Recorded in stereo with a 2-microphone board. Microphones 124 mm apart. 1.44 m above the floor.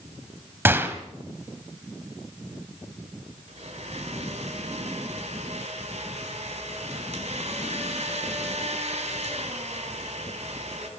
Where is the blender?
70° right (ahead or behind), 5 m.